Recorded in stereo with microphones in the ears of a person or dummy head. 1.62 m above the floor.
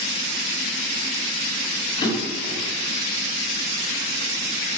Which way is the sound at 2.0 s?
25° left (ahead or behind).